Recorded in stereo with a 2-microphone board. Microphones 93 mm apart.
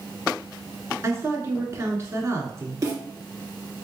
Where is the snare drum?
40° right (ahead or behind), 1.8 m.